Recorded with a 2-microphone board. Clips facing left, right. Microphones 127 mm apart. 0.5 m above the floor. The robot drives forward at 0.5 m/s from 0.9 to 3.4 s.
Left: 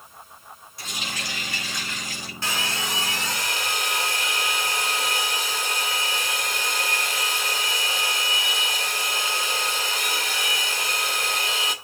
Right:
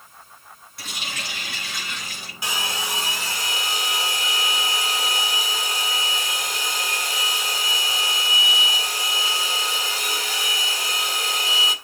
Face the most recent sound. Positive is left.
turn(degrees=-10)  # may be behind; listen again after turning